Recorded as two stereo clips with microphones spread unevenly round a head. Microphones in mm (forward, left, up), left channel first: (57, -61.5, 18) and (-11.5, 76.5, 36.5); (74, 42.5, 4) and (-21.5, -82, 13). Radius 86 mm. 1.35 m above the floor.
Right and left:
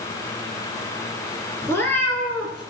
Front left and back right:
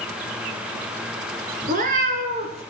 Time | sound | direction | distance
1.6 | a cat meowing | 140° right | 2 m